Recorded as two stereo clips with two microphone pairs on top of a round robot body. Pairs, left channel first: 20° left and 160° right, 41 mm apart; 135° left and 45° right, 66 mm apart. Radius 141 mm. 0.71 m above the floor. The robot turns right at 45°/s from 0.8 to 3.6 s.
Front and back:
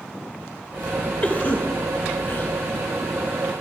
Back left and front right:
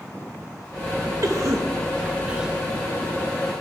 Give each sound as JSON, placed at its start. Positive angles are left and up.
{"t": 1.2, "sound": "a cough", "azimuth_deg": -20, "distance_m": 0.9}